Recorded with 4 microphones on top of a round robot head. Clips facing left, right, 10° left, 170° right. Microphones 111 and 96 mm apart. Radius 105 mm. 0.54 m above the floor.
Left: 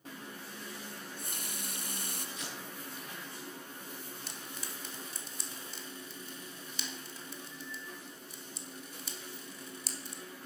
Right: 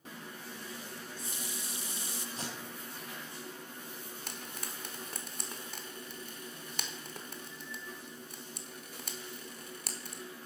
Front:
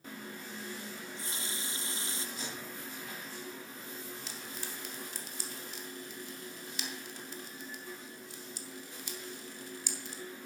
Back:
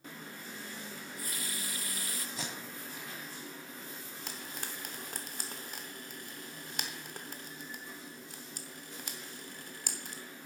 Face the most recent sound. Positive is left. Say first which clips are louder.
# right 1 dB, even
turn(degrees=-130)